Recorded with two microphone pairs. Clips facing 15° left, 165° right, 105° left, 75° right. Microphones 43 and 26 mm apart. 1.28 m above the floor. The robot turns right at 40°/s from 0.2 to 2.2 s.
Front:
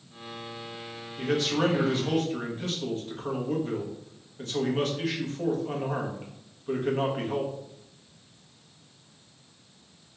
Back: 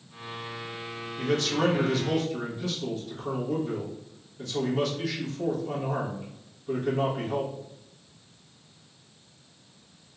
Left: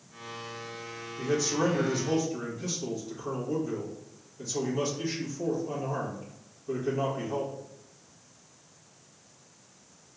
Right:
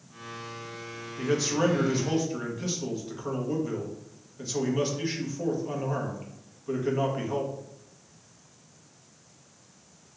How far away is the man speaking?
About 1.3 m.